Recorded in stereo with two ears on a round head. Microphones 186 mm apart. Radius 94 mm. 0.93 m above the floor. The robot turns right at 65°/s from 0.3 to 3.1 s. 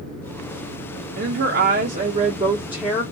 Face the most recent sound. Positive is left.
turn(degrees=10)